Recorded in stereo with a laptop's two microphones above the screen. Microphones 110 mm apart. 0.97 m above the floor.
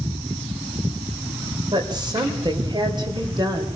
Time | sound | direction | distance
1.7 | a woman speaking | 40° right (ahead or behind) | 3 m